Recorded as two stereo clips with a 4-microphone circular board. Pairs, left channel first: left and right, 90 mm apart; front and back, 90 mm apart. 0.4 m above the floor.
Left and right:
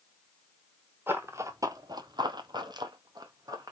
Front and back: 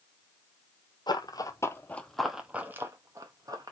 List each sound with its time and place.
1.1 s running footsteps: 25° right, 0.7 m; by 3.7 s 140° right, 1.0 m